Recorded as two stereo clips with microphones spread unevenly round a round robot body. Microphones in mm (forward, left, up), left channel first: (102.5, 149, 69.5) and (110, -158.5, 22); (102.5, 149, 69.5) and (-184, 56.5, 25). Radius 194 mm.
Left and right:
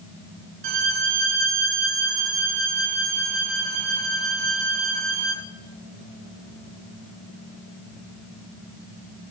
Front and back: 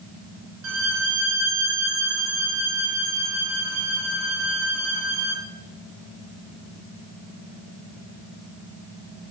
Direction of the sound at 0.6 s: 105° right.